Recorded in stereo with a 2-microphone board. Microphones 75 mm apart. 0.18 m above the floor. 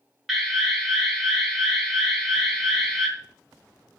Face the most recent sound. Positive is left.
turn(degrees=0)  # may be behind; listen again after turning